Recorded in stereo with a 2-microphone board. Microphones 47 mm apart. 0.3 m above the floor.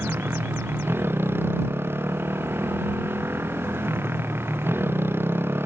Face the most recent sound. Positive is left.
turn(degrees=-55)  # may be behind; listen again after turning